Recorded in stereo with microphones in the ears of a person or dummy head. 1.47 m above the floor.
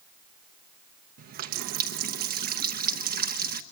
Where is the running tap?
50° right (ahead or behind), 0.8 m.